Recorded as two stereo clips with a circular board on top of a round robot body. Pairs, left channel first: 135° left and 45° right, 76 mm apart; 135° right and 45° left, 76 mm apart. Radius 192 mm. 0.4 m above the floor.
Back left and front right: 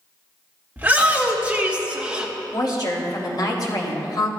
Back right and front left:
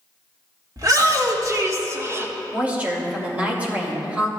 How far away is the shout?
About 2.0 m.